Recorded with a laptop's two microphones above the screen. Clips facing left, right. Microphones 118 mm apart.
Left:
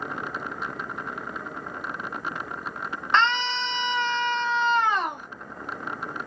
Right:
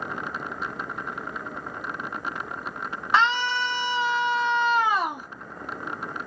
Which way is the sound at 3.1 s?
10° right (ahead or behind).